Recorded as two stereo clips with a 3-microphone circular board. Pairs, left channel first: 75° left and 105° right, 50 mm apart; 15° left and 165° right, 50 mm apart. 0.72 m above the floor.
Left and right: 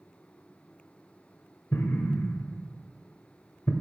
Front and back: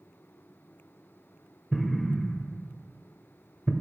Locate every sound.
1.7 s an explosion: 100° left, 0.9 m